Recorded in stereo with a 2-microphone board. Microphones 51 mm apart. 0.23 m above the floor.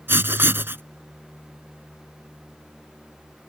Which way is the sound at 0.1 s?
50° right (ahead or behind).